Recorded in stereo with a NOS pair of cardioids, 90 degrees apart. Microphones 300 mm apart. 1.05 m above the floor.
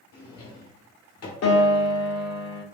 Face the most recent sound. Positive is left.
turn(degrees=55)